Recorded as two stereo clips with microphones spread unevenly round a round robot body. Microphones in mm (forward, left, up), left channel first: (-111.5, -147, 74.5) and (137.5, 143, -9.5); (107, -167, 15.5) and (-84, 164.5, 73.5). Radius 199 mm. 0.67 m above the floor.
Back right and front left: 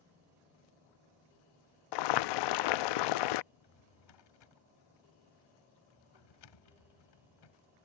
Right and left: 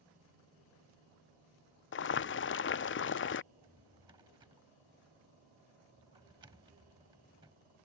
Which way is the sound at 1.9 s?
105° right.